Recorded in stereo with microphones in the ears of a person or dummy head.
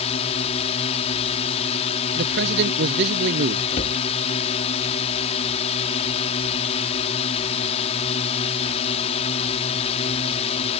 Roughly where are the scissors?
No scissors in this recording.